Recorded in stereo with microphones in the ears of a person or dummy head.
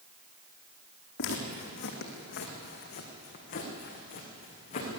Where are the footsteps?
65° left (ahead or behind), 4 m; by 5.0 s 40° left (ahead or behind), 6 m.